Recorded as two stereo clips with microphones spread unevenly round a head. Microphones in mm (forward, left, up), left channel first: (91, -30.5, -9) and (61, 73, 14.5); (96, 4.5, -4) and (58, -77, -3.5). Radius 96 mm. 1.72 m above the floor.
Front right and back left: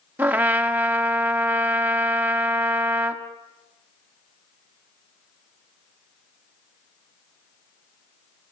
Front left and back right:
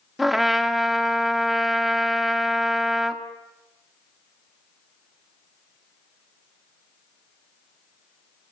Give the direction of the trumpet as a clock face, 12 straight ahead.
7 o'clock.